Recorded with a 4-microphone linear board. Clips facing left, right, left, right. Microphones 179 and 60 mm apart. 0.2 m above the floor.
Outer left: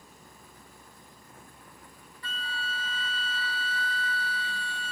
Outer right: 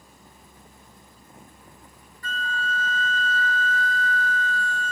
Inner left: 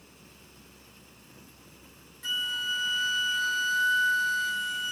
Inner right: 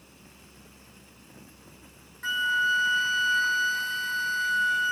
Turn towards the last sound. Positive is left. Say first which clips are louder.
# outer right 8 dB, inner right 8 dB
turn(degrees=-45)  # may be behind; listen again after turning